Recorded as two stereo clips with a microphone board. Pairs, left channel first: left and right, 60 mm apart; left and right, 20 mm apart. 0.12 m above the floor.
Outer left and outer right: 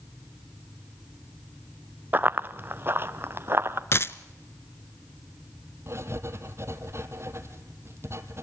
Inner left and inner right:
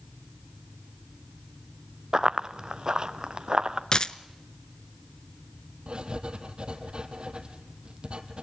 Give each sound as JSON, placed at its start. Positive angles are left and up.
{"t": 2.1, "sound": "running footsteps", "side_deg": -30, "distance_m": 0.7}
{"t": 3.9, "sound": "a dropped coin", "side_deg": 45, "distance_m": 0.6}
{"t": 5.9, "sound": "writing", "side_deg": -50, "distance_m": 1.7}